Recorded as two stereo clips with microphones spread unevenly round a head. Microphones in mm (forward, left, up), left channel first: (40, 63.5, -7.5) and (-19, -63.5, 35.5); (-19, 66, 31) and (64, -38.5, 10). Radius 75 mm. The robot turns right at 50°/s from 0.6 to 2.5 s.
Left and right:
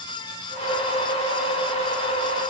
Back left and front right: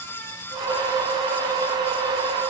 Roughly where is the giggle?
I don't hear a giggle.